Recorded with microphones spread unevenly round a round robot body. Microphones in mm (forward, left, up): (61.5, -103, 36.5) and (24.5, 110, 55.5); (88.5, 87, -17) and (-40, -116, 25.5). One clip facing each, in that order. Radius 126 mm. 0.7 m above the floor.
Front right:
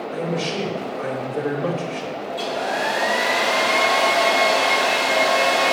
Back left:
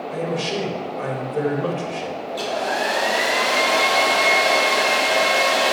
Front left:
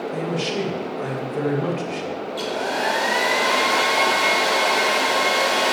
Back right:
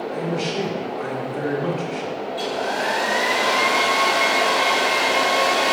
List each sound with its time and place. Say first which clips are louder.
0.1 s a man speaking: back left 1 dB, back right 1 dB; 40° left, 4 m
2.3 s a hair dryer: back left 1 dB, even; 65° left, 3 m